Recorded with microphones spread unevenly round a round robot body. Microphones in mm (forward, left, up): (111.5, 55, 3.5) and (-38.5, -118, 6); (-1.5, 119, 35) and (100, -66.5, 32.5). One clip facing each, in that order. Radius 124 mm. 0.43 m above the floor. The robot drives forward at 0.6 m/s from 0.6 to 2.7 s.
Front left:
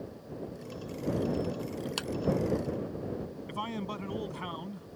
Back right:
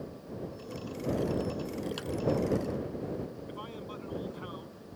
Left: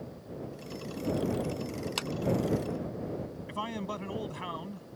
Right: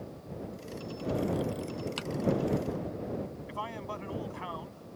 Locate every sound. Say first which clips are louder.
2.0 s a clap: front left 1 dB, left 1 dB; 90° left
3.5 s a man speaking: front left 4 dB, left 3 dB; 75° left